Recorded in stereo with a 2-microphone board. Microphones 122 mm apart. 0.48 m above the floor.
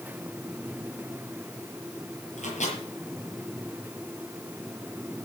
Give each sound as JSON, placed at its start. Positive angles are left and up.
{"t": 2.4, "sound": "a microwave", "side_deg": 85, "distance_m": 7.0}